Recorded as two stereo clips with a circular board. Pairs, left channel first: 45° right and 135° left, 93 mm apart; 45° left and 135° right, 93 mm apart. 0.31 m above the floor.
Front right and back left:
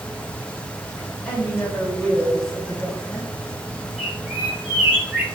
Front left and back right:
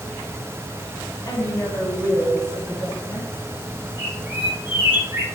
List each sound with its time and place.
1.2 s a woman speaking: 30° left, 1.6 m; by 3.3 s 140° right, 1.2 m
4.0 s a bird: 165° right, 1.3 m